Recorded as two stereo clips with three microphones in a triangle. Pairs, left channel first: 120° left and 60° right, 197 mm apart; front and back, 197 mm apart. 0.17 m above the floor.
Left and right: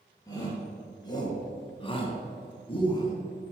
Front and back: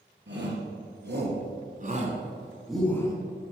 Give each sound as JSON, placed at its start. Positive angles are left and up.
{"t": 0.3, "sound": "a shout", "azimuth_deg": -170, "distance_m": 3.5}